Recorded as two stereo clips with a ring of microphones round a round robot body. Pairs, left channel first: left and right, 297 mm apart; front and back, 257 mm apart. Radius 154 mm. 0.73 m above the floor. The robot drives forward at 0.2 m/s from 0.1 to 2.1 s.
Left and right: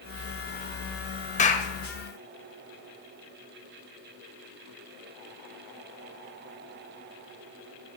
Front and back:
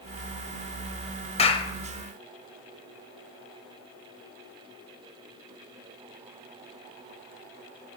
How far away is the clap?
About 0.9 m.